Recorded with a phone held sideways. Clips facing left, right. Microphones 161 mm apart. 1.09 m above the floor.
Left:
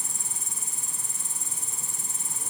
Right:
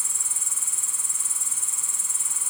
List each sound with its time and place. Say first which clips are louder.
0.0 s an insect: left 3 dB; 40° left (ahead or behind)